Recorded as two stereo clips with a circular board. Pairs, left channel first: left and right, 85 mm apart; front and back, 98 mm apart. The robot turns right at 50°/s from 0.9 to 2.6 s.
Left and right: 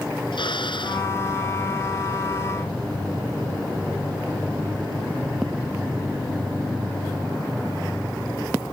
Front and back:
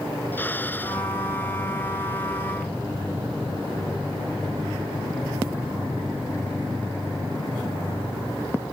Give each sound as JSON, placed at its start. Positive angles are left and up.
{"t": 0.3, "sound": "a drill", "azimuth_deg": 70}